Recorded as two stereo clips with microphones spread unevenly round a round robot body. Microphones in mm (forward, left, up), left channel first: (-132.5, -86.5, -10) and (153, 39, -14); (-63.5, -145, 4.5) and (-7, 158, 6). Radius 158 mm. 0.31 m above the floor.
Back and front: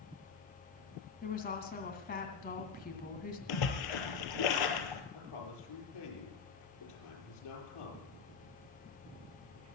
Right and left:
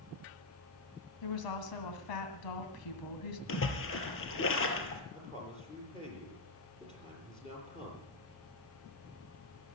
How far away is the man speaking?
About 7 m.